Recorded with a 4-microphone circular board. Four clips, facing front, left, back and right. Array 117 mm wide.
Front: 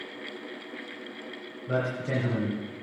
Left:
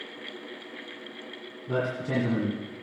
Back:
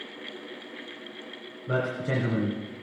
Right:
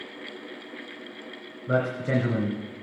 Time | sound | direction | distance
1.7 | a man speaking | 100° right | 3 m